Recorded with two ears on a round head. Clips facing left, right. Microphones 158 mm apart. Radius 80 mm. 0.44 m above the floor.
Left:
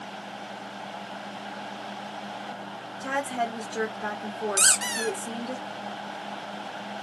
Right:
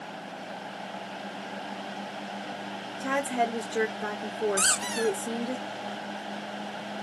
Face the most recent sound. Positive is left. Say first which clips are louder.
# right 3 dB
turn(degrees=25)  # may be behind; listen again after turning